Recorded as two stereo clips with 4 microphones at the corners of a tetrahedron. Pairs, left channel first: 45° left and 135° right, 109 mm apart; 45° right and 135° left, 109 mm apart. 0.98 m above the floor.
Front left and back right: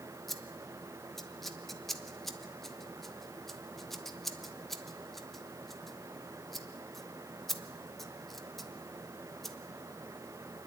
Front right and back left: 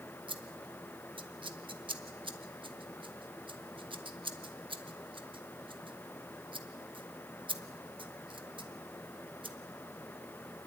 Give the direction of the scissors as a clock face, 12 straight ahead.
8 o'clock.